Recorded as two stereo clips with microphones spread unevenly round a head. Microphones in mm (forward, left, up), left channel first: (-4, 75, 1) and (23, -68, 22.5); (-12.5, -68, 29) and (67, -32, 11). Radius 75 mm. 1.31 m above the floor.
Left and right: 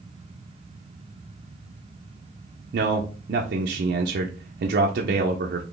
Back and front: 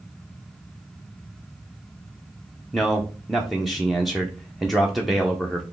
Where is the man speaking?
70° right, 0.5 m.